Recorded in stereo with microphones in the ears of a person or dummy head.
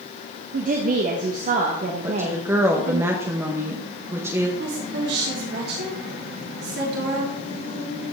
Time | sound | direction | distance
0.5 | a woman speaking | 40° right (ahead or behind) | 0.9 m
2.0 | a woman speaking | 15° right (ahead or behind) | 1.0 m
4.6 | a woman speaking | 65° right (ahead or behind) | 3 m